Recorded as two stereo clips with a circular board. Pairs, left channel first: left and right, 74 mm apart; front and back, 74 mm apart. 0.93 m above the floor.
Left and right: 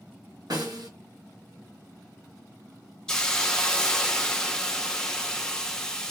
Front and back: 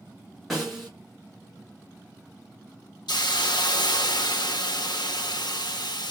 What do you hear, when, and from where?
0.5 s a snare drum: 90° right, 1.4 m
3.1 s a hiss: 10° left, 0.5 m